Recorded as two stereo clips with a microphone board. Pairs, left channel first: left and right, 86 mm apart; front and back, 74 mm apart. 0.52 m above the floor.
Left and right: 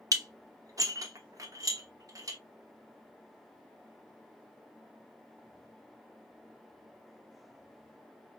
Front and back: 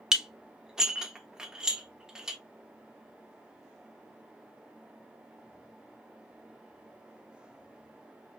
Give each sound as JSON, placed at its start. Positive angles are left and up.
{"t": 0.1, "sound": "dishes clattering", "azimuth_deg": -105, "distance_m": 0.7}